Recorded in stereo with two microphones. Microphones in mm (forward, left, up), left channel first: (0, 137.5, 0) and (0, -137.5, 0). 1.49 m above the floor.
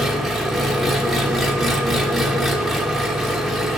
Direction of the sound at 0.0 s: Centre (ahead or behind).